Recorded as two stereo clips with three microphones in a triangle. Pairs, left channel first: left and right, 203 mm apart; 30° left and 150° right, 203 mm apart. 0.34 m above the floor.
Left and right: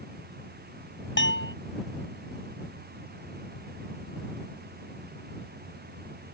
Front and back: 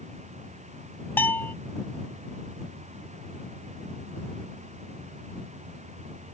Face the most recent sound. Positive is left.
turn(degrees=110)